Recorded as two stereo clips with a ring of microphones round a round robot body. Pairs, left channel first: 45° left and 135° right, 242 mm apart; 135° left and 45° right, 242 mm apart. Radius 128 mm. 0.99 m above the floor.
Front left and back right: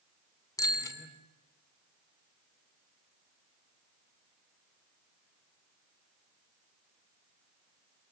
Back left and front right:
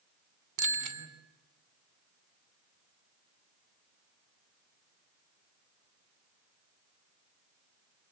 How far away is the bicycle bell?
About 2.5 m.